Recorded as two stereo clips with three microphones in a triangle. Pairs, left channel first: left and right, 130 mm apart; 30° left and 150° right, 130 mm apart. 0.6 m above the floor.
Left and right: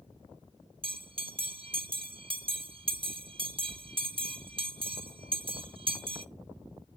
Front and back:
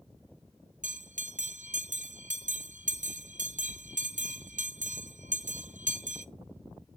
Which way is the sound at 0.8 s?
140° right.